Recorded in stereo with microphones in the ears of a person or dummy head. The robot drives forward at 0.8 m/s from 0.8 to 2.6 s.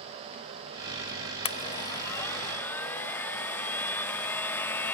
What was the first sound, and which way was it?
A blender, 35° left (ahead or behind).